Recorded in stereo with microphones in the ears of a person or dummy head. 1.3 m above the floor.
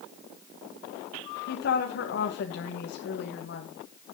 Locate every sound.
1.5 s a woman speaking: 60° left (ahead or behind), 1.8 m